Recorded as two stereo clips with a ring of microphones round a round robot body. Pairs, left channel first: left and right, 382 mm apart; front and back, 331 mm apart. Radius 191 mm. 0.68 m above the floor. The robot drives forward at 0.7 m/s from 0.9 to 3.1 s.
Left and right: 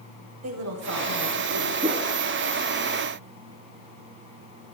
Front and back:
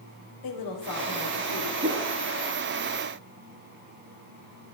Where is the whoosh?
150° right, 0.9 m; by 2.1 s 160° right, 1.0 m.